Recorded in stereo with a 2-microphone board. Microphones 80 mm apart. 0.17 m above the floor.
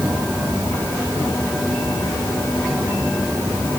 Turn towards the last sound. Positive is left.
No sound to turn to.